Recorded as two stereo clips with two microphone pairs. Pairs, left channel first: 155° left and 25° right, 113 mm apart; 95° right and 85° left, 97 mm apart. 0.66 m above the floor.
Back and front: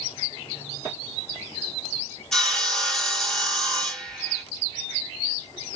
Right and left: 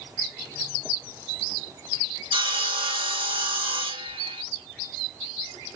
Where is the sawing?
65° left, 1.1 m.